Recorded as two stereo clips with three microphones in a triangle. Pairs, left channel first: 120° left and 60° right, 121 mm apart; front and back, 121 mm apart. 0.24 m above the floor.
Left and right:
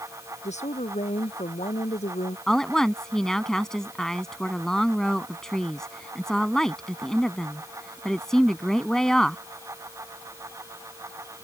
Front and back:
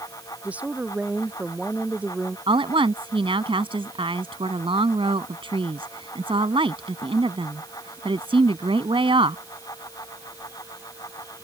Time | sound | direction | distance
0.4 | a woman speaking | 100° left | ?
2.5 | a woman speaking | 155° right | ?